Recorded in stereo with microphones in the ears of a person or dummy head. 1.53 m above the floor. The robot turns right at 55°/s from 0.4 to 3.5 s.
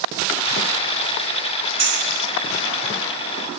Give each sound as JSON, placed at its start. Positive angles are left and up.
{"t": 1.8, "sound": "a clink", "side_deg": -20, "distance_m": 0.9}